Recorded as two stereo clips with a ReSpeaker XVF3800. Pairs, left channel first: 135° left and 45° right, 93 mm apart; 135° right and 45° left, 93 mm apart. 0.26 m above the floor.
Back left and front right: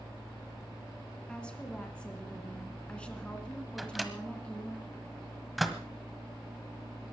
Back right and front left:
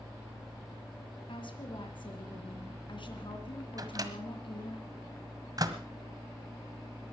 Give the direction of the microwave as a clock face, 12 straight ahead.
11 o'clock.